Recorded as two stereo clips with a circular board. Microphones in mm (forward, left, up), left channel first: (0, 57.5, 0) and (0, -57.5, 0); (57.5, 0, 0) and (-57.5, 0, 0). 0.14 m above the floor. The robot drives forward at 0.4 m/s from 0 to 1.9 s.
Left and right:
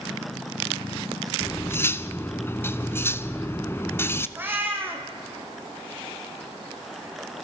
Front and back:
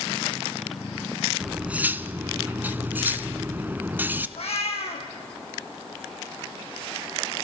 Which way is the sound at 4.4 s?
20° right.